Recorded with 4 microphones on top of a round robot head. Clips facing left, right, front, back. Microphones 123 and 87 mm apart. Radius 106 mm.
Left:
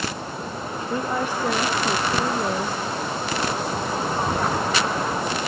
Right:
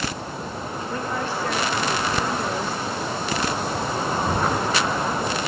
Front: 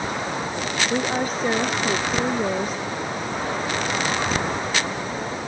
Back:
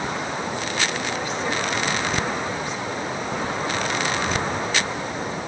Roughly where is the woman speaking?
Ahead.